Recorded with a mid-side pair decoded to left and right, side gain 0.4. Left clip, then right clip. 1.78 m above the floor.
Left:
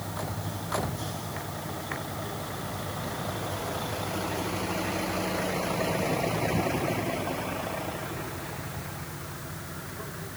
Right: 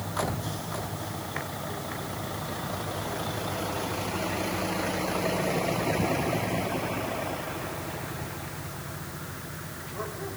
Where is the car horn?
I don't hear a car horn.